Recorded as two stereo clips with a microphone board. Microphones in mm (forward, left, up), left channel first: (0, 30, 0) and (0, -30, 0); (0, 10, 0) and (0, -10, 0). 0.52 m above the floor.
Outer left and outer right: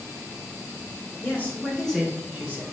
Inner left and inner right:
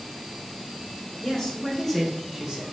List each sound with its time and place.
1.2 s a man speaking: 35° left (ahead or behind), 1.4 m; by 2.6 s 30° right (ahead or behind), 1.2 m